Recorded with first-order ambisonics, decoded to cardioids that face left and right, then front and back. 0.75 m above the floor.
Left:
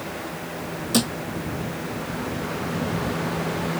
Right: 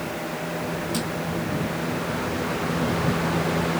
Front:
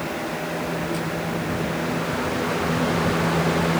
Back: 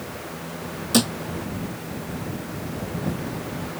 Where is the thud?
150° left.